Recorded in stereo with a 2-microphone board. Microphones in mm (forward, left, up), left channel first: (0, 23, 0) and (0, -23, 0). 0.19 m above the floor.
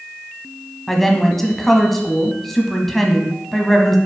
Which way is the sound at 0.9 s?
5° left (ahead or behind).